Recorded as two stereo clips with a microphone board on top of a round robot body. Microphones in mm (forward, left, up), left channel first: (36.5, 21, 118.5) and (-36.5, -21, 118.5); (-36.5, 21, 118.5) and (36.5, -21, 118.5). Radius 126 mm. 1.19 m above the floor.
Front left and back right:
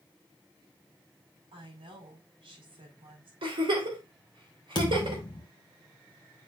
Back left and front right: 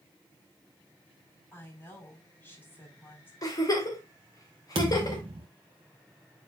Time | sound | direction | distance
1.5 | a woman speaking | 145° right | 5 m
3.4 | a giggle | 165° right | 3.5 m
4.8 | a thud | 5° right | 1.0 m